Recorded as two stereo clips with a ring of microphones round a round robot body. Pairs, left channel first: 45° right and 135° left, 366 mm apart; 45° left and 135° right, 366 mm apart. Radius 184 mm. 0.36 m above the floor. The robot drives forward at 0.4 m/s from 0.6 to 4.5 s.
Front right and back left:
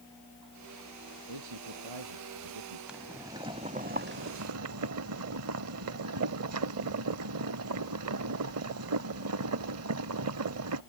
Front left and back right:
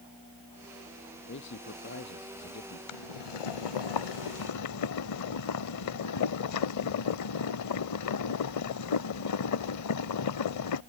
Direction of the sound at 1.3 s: 105° left.